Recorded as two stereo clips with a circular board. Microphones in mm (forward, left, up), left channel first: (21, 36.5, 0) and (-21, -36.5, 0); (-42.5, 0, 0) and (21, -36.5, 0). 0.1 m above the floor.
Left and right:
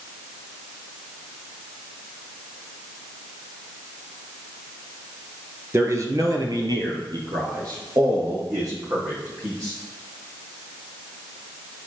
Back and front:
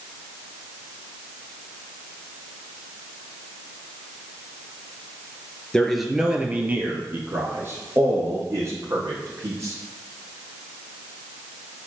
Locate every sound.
5.7 s a man speaking: 140° right, 1.4 m; by 9.7 s 80° right, 6 m